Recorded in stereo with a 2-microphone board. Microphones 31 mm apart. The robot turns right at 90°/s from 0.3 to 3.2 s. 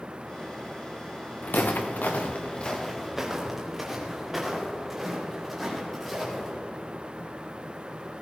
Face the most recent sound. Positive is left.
turn(degrees=5)  # may be behind; listen again after turning